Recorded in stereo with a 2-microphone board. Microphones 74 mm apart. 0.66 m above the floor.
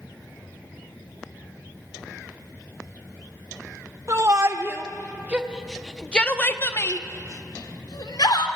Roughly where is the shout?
Right.